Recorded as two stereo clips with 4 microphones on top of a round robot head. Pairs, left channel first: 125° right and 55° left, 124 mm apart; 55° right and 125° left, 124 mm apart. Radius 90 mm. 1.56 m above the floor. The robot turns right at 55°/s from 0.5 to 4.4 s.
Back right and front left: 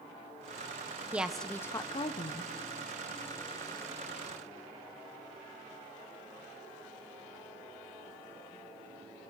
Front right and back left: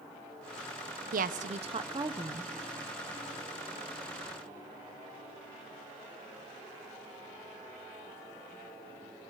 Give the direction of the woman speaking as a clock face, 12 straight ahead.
7 o'clock.